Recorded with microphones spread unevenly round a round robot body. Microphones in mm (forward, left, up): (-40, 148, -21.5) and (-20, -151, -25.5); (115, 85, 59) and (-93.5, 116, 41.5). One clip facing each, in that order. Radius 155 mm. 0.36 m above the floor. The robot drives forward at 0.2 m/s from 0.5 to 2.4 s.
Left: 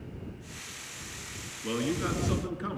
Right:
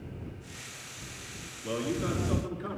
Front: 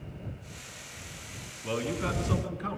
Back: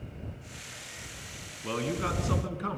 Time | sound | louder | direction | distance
1.6 | a man speaking | left 1 dB, even | 140° left | 4.5 m